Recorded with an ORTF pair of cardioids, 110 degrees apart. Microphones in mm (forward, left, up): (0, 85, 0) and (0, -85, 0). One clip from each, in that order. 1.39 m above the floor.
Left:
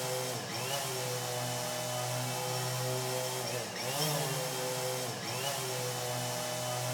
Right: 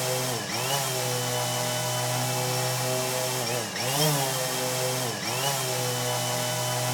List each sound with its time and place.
0.0 s a machine running: 50° right, 1.2 m